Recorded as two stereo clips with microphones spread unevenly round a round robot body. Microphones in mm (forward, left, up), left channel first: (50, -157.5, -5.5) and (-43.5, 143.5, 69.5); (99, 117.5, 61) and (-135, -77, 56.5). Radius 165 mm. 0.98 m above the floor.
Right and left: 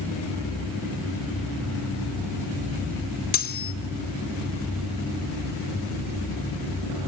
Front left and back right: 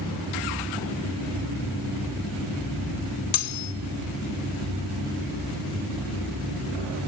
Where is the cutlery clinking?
5° right, 1.4 m.